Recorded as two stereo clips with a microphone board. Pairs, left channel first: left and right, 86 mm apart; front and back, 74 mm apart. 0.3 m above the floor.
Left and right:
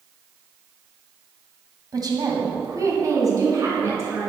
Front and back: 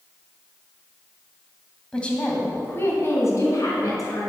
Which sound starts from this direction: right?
A woman speaking, at 1.9 s.